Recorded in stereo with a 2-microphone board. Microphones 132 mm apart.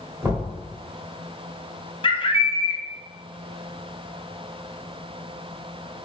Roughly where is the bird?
Left.